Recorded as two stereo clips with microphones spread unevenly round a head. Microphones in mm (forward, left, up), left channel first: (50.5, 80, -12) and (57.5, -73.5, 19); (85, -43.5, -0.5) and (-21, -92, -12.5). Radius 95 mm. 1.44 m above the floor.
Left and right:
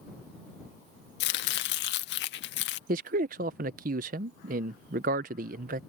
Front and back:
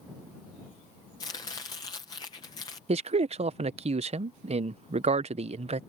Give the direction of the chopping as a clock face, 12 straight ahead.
9 o'clock.